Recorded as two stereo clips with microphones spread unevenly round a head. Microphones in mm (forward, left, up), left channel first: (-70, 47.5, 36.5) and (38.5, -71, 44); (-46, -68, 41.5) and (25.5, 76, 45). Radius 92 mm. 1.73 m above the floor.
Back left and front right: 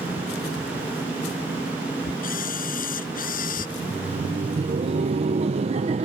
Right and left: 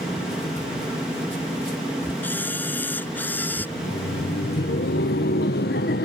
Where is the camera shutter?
165° left.